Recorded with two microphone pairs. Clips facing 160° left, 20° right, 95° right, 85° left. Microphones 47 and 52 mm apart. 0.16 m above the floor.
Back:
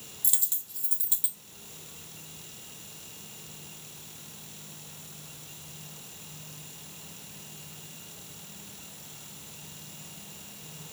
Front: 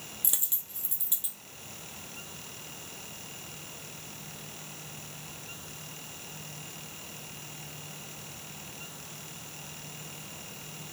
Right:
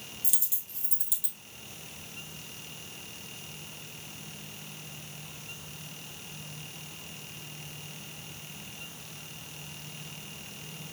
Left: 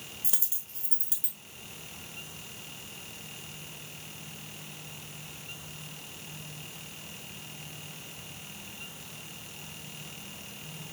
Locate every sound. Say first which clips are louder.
0.2 s a dropped coin: front 1 dB, even; 35° left, 1.4 m